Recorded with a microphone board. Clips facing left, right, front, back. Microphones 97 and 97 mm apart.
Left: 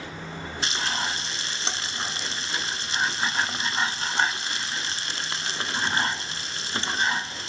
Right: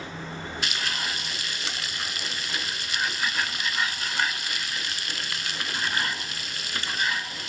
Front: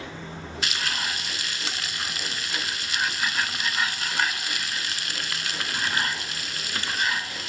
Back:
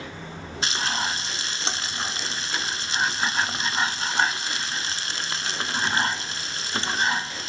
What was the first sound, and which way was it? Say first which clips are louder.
Frying: left 4 dB, back 4 dB; 135° left.